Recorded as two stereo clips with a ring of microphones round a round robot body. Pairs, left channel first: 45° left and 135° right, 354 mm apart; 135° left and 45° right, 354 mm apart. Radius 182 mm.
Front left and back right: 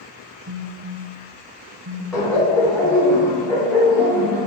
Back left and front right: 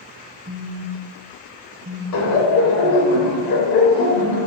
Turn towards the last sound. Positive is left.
turn(degrees=140)